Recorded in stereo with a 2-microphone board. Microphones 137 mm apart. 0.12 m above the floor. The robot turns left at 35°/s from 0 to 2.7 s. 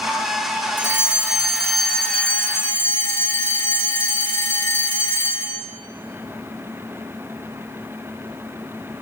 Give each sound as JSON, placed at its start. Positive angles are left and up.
{"t": 0.8, "sound": "a fire alarm", "azimuth_deg": -150, "distance_m": 3.0}